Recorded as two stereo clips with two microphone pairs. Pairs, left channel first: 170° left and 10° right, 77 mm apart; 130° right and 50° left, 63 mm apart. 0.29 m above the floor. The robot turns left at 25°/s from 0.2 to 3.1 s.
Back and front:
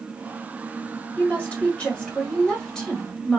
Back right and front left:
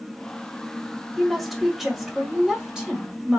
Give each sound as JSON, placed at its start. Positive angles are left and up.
{"t": 1.2, "sound": "a woman speaking", "azimuth_deg": 145, "distance_m": 1.6}